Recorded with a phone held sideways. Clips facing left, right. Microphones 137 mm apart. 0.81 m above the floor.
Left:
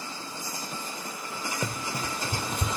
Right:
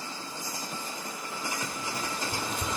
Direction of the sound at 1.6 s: 60° left (ahead or behind).